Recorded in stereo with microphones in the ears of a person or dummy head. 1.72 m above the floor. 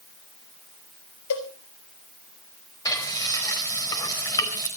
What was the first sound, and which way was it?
A cowbell, 70° left (ahead or behind).